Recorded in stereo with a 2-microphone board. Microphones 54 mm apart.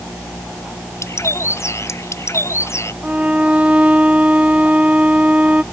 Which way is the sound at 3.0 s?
25° right (ahead or behind).